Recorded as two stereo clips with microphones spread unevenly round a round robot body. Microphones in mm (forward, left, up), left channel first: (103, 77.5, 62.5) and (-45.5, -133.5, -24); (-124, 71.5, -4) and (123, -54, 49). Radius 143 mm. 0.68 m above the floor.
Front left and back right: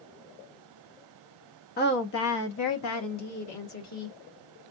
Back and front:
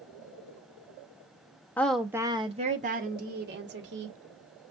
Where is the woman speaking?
105° left, 0.6 m; by 4.2 s 25° left, 1.4 m.